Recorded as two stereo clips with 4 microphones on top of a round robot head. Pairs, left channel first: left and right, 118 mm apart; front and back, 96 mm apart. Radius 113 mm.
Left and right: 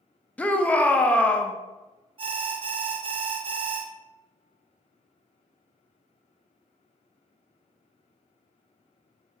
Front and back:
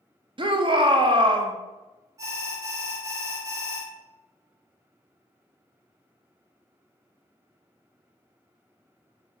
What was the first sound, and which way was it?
A shout, 165° left.